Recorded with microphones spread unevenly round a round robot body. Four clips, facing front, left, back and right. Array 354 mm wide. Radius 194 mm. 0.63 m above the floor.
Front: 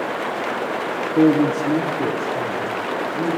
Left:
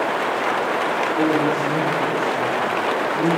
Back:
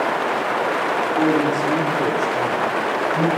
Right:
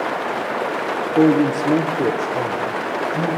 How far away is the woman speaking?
About 1.1 m.